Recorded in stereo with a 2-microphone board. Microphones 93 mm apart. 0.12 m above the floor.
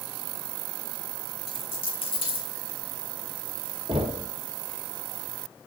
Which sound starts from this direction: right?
Knocking, at 3.9 s.